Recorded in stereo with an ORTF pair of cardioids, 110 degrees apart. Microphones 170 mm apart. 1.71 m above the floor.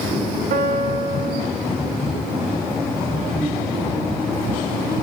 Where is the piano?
55° right, 3.5 m.